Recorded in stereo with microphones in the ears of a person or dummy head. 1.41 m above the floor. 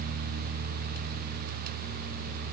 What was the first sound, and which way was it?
Only background noise.